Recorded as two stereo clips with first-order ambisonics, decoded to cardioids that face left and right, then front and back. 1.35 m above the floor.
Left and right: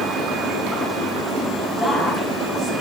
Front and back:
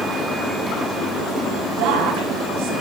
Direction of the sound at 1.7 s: Straight behind.